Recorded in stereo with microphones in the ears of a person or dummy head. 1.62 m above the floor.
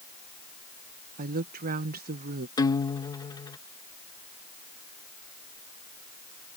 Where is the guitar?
20° left (ahead or behind).